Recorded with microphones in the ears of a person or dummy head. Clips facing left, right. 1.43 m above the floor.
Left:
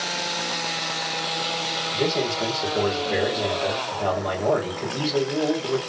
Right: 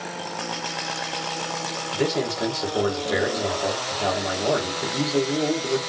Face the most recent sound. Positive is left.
turn(degrees=-20)  # may be behind; listen again after turning